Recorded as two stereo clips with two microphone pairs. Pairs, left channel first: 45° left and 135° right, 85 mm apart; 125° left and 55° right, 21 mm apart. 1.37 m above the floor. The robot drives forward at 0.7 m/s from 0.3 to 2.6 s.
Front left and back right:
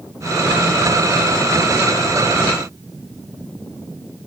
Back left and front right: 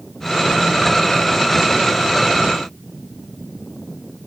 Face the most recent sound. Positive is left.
No sound to turn to.